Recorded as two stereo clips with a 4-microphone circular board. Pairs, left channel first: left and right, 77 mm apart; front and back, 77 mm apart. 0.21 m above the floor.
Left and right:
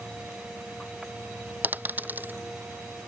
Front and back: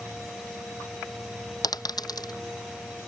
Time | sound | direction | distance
1.6 | a dropped coin | 25° right | ?